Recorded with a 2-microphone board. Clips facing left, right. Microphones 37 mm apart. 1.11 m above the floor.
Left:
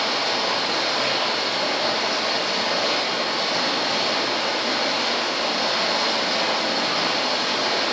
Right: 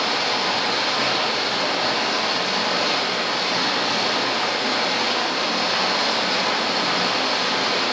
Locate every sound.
0.0 s running water: 75° right (ahead or behind), 0.8 m